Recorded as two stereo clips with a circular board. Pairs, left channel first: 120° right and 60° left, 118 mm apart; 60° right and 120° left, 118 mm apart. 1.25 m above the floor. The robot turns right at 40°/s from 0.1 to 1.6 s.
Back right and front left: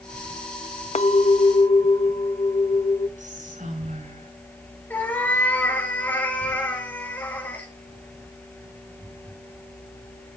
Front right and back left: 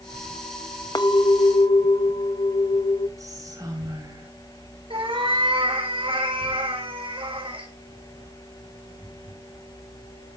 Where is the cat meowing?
165° left, 5.5 m.